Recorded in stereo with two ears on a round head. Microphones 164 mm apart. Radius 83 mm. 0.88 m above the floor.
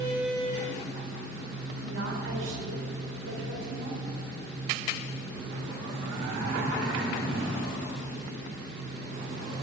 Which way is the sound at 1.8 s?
80° right.